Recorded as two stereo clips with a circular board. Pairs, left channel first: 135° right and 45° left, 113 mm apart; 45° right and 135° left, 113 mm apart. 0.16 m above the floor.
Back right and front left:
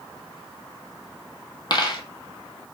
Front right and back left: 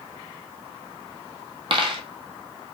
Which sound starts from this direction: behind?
A dropped coin, at 1.7 s.